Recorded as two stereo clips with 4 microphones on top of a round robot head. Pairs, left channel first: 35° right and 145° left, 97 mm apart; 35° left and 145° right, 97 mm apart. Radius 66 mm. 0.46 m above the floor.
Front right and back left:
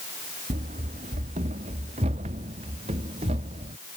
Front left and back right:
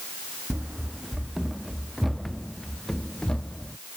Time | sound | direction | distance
0.5 | running footsteps | 135° left | ?